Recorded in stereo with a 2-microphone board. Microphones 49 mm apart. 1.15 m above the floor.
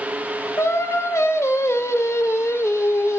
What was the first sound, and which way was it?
Singing, 75° left (ahead or behind).